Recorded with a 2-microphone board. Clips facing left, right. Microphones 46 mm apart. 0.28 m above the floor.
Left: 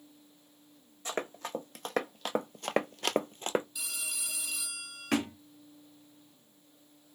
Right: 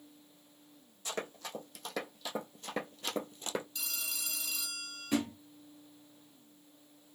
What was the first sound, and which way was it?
Running footsteps, 35° left (ahead or behind).